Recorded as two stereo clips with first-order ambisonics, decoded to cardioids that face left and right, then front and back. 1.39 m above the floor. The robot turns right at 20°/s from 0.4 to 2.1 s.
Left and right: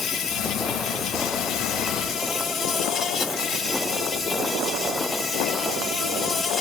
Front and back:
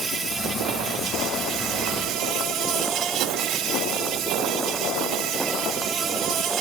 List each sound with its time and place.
0.0 s an insect: 115° left, 1.3 m; by 6.6 s 150° left, 1.3 m